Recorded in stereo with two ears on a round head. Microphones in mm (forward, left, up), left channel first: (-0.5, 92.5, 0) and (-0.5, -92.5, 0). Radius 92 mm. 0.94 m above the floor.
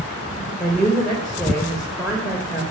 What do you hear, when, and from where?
0.6 s a woman speaking: centre (ahead or behind), 3 m